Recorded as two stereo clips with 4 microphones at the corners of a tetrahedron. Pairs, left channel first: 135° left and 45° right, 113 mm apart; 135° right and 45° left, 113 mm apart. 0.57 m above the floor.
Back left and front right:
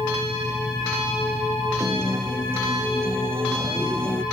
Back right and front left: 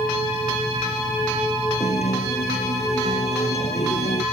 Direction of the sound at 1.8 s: 115° right.